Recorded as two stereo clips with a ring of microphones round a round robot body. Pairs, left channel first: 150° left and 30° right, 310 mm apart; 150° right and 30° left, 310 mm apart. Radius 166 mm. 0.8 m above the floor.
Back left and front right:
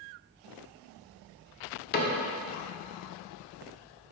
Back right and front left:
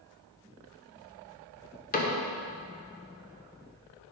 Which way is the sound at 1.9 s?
175° left.